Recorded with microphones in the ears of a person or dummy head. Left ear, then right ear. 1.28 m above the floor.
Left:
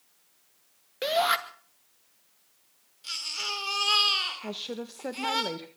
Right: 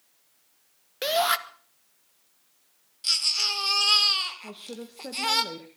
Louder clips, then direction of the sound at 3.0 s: Right 8 dB; 20° right (ahead or behind).